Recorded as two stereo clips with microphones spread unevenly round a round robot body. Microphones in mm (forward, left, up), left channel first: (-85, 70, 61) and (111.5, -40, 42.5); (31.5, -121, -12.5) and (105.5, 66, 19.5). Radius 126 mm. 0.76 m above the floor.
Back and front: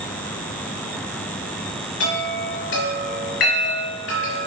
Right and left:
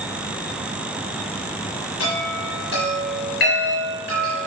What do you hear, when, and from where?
2.0 s a chime: 165° right, 3.5 m